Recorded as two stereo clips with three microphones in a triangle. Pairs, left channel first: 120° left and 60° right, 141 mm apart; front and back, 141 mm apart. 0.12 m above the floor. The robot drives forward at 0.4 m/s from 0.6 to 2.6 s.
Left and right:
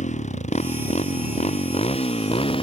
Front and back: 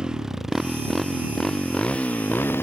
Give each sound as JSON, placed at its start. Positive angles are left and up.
{"t": 0.0, "sound": "a motorcycle", "azimuth_deg": 95}